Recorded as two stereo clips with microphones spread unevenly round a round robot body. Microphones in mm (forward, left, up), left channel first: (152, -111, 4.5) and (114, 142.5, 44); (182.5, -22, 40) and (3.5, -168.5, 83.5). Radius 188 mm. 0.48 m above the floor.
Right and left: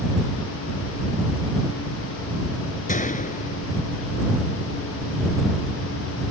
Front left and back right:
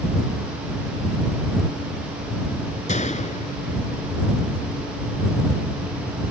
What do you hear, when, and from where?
2.9 s a gunshot: 20° right